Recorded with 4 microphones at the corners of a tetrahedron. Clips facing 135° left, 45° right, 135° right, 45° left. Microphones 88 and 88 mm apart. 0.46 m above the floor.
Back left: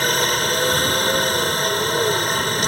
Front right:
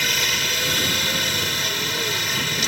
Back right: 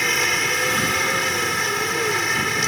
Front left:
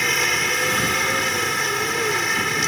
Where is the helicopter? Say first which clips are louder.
Back left 6 dB, even; 135° left.